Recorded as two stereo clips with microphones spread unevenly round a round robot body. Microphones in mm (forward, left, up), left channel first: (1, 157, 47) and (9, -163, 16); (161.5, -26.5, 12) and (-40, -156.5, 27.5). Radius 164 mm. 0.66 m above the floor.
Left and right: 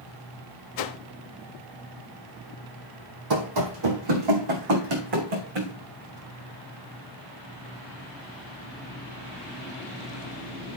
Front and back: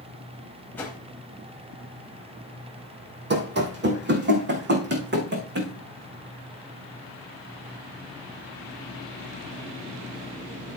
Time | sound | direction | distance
0.8 | a whoosh | 120° left | 0.8 m
3.3 | running footsteps | 110° right | 1.8 m